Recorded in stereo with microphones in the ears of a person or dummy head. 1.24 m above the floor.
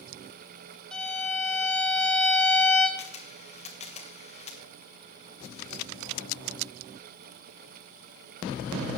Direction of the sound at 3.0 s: 30° left (ahead or behind).